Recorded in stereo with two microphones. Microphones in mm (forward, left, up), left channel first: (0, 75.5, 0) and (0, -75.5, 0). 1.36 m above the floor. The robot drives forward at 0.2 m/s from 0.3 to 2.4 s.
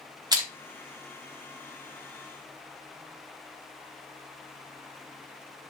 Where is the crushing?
25° right (ahead or behind), 0.9 m.